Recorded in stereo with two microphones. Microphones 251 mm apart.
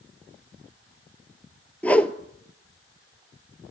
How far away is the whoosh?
About 0.6 m.